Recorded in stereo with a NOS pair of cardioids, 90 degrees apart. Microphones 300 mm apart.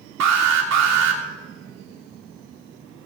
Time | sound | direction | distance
0.2 | an alarm | 60° right | 3 m